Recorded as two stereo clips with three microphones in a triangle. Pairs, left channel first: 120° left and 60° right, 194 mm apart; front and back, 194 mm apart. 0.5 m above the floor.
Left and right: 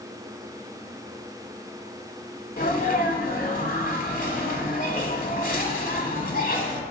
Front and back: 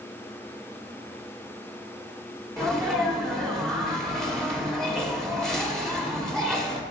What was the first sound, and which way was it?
A sneeze, 85° left.